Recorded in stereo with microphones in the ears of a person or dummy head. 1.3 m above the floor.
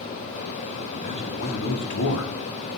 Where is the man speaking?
45° left (ahead or behind), 2.5 m; by 2.3 s 80° left, 1.9 m.